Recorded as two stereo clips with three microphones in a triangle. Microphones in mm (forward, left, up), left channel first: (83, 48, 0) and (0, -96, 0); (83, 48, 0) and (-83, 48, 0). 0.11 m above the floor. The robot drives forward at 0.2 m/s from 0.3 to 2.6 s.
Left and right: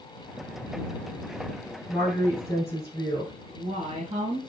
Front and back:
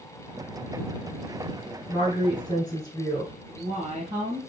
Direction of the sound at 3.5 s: 165° right.